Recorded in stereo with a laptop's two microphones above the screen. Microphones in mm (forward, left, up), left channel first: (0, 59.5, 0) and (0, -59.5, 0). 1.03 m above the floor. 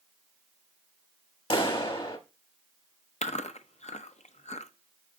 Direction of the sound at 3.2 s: 70° left (ahead or behind).